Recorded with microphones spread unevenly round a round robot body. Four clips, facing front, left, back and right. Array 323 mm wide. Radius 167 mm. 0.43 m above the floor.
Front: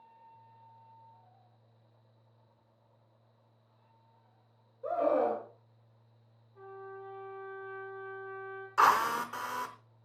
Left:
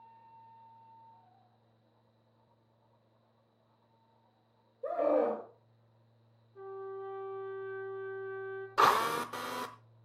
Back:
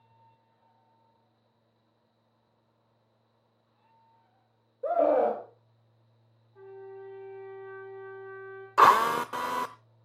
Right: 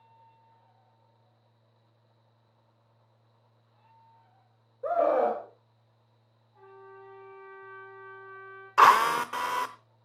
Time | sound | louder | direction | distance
4.8 | a scream | right 5 dB, back 5 dB | 170° right | 2.5 m
6.5 | a trumpet | left 7 dB, back 2 dB | 115° left | 3.5 m
8.8 | a drill | right 8 dB, back 6 dB | straight behind | 0.8 m